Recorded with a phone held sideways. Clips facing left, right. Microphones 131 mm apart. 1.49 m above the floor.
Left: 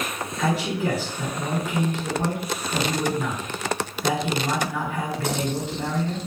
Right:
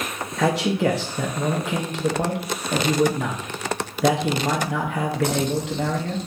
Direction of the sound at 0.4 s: 80° right.